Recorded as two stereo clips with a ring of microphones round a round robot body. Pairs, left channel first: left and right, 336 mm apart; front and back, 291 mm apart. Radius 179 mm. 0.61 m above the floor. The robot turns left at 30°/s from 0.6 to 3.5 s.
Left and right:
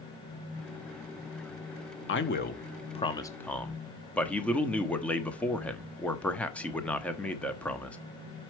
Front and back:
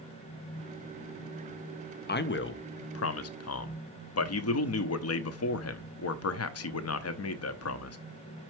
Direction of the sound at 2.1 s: 45° left.